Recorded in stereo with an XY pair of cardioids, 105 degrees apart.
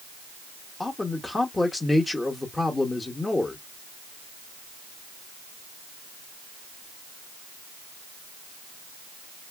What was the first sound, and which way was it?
A man speaking, 20° left.